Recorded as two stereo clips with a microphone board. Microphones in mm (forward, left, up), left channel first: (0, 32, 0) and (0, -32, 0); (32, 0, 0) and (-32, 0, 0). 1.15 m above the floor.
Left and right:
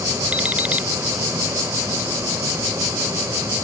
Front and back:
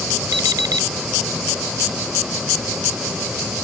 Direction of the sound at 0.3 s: 160° right.